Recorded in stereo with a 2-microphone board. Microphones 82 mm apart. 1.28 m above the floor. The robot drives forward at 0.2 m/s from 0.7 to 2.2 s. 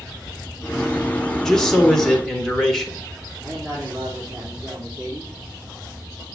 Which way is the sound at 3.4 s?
30° right (ahead or behind).